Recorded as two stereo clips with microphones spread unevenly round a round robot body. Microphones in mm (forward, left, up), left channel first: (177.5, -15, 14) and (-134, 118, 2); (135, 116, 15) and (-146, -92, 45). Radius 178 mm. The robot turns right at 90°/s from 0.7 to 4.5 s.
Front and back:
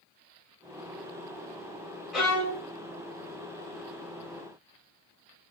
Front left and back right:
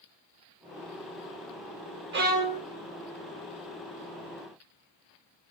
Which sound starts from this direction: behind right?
A violin, at 2.1 s.